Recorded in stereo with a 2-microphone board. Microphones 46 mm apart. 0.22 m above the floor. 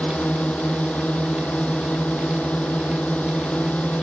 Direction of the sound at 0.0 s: 35° left (ahead or behind).